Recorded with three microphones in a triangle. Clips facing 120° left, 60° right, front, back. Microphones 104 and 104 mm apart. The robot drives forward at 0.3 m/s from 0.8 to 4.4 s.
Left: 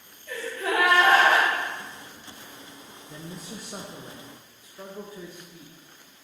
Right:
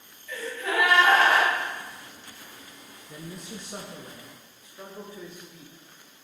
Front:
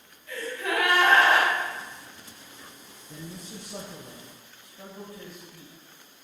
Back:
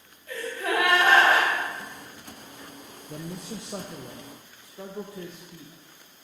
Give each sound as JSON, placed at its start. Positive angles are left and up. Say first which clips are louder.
{"t": 0.3, "sound": "a gasp", "louder": "left 2 dB, back 2 dB", "azimuth_deg": 130, "distance_m": 2.5}
{"t": 3.1, "sound": "a man speaking", "louder": "even, back 5 dB", "azimuth_deg": -150, "distance_m": 0.5}